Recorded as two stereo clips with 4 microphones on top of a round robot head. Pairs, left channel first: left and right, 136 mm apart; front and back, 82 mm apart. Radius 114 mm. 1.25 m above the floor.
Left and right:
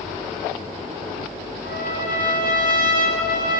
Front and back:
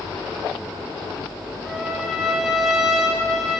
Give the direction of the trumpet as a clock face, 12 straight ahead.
3 o'clock.